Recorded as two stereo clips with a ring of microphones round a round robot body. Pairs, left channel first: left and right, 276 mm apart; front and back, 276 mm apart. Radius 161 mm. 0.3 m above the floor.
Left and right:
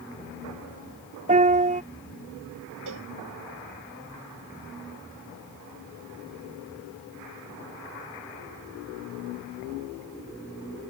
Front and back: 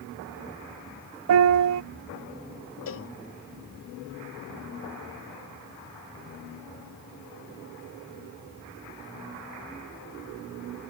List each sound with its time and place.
1.3 s a piano: 155° right
2.9 s a cowbell: 40° right